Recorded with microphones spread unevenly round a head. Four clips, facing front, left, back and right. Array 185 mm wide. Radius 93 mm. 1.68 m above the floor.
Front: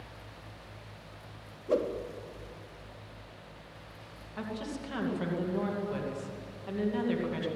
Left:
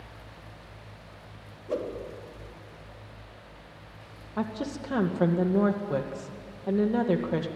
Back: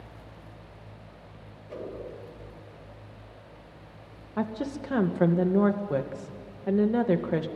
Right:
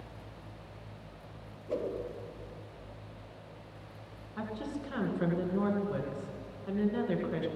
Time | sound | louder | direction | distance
1.7 | a whoosh | left 3 dB, front 9 dB | 15° left | 3.5 m
4.4 | a woman speaking | left 6 dB, back 7 dB | 145° left | 2 m